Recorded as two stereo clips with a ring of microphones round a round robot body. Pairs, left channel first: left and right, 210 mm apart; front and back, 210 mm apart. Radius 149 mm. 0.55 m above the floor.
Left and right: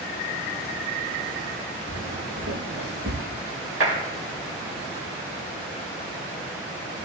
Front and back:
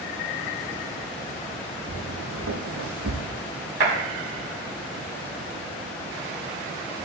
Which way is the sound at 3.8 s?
135° right.